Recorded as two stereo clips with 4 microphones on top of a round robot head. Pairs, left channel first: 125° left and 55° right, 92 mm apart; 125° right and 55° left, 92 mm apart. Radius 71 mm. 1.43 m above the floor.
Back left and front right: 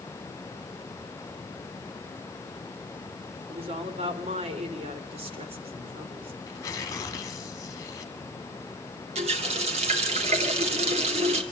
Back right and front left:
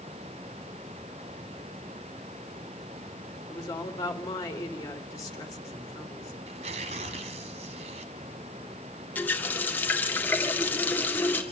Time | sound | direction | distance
3.5 | a woman speaking | 65° right | 3.5 m
6.4 | tearing paper | 65° left | 2 m
9.2 | a running tap | 50° right | 2.5 m